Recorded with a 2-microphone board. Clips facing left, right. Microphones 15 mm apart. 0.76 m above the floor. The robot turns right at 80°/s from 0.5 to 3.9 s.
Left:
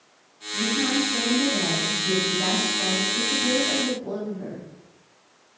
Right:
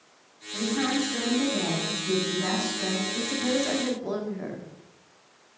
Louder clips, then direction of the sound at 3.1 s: Left 4 dB; 160° right.